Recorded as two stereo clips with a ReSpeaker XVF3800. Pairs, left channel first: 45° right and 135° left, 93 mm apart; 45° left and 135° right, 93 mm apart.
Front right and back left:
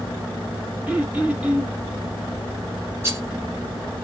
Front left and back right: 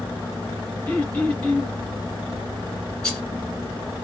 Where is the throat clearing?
85° left, 1.3 m.